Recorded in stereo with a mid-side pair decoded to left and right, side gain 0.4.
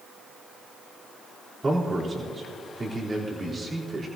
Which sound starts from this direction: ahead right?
A man speaking, at 1.6 s.